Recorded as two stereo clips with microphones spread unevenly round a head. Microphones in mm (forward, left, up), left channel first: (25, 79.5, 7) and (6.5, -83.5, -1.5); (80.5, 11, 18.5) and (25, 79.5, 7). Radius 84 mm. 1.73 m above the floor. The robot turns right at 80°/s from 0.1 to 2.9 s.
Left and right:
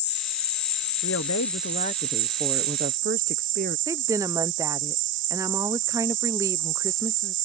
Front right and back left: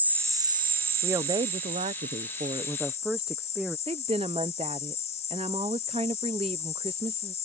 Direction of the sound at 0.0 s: 55° left.